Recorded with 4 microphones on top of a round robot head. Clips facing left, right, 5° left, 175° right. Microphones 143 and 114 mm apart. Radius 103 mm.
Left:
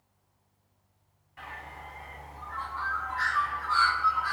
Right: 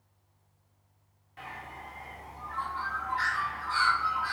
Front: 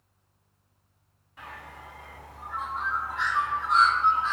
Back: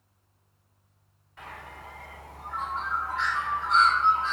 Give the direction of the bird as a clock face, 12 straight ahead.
3 o'clock.